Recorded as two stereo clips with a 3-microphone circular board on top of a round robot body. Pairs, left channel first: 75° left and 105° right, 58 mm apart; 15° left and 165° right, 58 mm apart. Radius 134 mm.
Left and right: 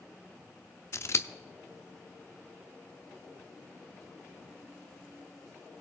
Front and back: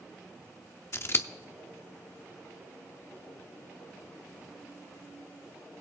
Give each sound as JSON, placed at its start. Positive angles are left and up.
{"t": 0.9, "sound": "scissors", "azimuth_deg": 50, "distance_m": 0.7}